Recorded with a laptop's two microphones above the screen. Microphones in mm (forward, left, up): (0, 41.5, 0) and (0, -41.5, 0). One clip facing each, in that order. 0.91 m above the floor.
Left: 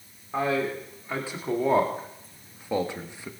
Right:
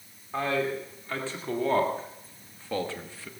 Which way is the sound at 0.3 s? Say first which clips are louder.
Left 2 dB; 10° left (ahead or behind).